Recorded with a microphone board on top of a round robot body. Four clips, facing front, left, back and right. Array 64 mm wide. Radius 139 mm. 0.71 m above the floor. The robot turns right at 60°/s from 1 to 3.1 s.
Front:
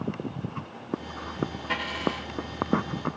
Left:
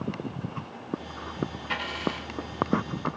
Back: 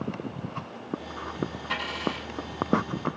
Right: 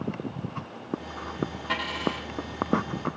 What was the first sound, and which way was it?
A dropped coin, 80° right.